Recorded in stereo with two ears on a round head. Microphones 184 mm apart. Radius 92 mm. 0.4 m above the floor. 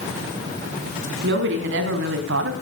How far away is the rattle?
No rattle in this recording.